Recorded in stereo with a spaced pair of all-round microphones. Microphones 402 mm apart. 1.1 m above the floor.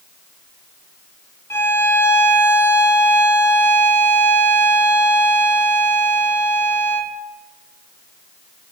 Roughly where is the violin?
Centre.